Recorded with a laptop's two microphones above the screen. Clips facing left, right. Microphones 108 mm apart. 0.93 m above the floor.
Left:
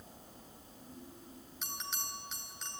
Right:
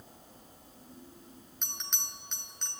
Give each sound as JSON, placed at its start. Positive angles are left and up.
{"t": 1.6, "sound": "a bell", "side_deg": 5, "distance_m": 3.0}